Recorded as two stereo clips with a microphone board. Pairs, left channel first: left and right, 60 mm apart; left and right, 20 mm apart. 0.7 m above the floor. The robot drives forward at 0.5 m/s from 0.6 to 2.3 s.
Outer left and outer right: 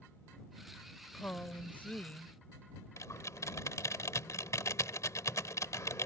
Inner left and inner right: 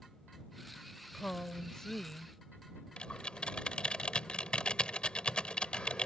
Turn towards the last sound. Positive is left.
turn(degrees=60)  # may be behind; listen again after turning